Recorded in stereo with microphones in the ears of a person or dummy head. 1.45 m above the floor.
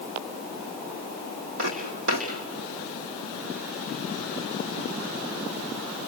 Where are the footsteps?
55° right (ahead or behind), 3.5 m.